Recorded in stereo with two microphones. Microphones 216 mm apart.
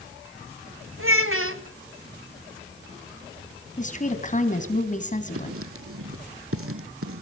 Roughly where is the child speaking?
Right.